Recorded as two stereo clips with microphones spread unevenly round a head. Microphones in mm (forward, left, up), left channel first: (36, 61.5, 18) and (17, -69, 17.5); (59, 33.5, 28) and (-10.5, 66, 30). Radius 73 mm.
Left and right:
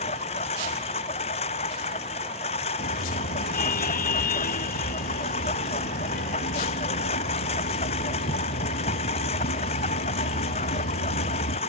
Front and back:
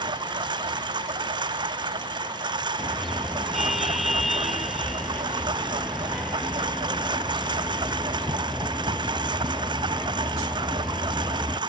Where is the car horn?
65° left.